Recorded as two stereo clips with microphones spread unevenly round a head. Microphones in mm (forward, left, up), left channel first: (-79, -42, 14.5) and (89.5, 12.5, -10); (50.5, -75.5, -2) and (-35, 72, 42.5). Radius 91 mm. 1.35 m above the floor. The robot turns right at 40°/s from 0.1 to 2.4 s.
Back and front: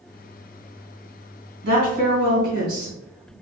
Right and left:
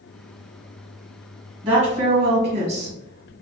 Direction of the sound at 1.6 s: 55° left.